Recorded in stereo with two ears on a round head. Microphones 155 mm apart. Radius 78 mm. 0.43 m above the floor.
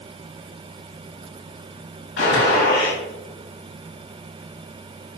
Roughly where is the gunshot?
Left.